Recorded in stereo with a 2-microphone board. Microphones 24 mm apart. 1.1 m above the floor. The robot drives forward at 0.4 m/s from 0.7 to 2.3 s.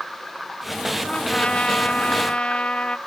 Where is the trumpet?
45° left (ahead or behind), 1.2 m; by 3.0 s 50° left (ahead or behind), 1.0 m.